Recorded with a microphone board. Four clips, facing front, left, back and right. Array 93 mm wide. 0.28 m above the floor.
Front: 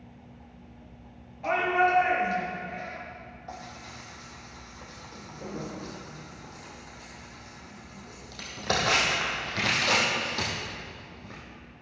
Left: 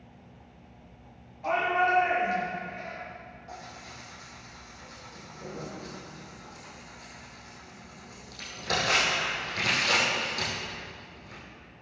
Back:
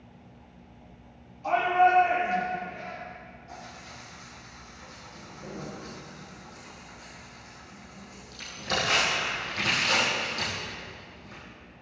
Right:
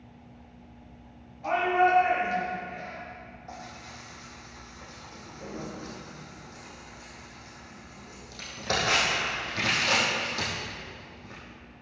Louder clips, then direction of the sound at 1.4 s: Right 2 dB, back 3 dB; straight ahead.